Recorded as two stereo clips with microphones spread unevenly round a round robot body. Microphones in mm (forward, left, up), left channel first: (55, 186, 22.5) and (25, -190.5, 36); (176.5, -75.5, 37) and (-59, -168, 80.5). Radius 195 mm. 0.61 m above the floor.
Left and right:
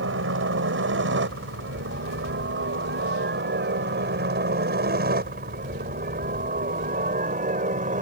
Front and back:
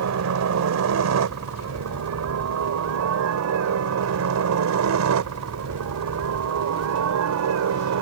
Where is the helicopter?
155° right; by 8.0 s 165° right.